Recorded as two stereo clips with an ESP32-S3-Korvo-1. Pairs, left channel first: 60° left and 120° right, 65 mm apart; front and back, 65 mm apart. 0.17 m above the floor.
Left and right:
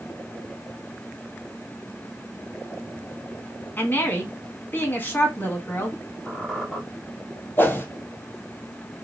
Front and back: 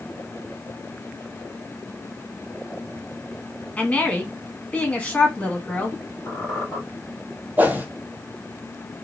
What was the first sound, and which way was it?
A woman speaking, 45° left.